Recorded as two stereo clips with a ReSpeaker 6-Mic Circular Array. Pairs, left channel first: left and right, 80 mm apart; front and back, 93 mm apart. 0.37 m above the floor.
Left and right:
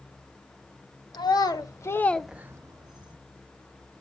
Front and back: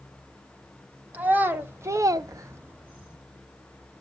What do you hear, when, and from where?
1.1 s a child speaking: 110° left, 1.2 m; by 3.2 s 105° right, 1.0 m